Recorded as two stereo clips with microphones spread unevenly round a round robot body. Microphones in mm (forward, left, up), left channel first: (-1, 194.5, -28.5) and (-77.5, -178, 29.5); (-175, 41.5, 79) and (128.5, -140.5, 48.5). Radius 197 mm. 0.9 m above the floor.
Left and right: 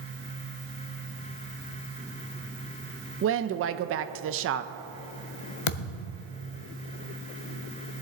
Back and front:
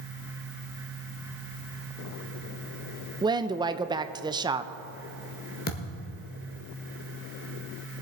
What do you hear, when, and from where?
3.2 s a woman speaking: 80° right, 0.6 m
5.7 s a thud: 85° left, 1.0 m